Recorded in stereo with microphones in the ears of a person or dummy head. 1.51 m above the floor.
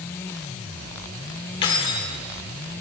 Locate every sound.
1.6 s keys jangling: 45° left (ahead or behind), 1.1 m